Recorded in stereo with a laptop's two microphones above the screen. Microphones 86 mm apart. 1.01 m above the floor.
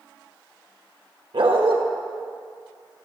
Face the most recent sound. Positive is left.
turn(degrees=-75)  # may be behind; listen again after turning